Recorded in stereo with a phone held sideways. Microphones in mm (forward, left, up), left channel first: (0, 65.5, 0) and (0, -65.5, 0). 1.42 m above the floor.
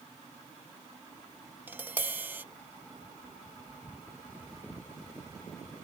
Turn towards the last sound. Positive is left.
turn(degrees=-15)  # may be behind; listen again after turning